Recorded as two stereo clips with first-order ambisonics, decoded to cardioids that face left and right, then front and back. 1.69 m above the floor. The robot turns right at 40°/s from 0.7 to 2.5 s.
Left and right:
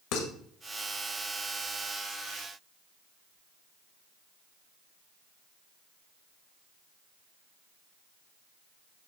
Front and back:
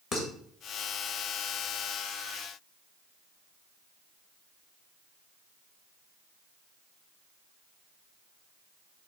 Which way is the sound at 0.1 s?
60° left.